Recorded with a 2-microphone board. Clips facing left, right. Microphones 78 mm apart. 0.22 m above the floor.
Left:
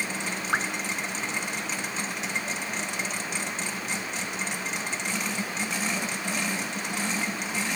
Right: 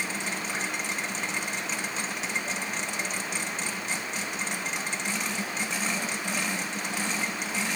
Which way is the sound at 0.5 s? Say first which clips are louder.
Left 10 dB; 65° left (ahead or behind).